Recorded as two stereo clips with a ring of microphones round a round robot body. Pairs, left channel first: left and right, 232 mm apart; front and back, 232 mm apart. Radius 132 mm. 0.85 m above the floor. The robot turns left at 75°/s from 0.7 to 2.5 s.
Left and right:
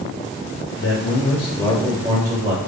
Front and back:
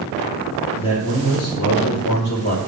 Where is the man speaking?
75° left, 3.5 m; by 2.6 s 55° right, 3.5 m.